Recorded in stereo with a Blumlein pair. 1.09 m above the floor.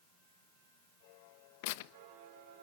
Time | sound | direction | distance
1.6 | tearing paper | 50° left | 1.0 m